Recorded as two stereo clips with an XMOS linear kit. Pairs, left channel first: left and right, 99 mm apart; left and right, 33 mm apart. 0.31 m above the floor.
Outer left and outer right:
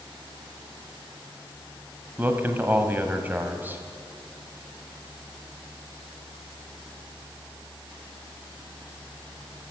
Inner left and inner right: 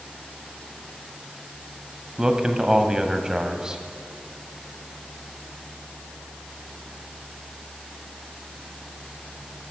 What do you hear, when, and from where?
2.2 s a man speaking: 20° right (ahead or behind), 1.4 m